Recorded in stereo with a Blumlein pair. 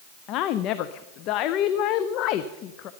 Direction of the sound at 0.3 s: 40° left.